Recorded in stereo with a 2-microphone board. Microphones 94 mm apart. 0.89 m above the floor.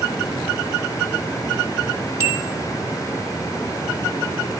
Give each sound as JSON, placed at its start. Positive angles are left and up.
{"t": 2.2, "sound": "a bell", "side_deg": -40, "distance_m": 1.9}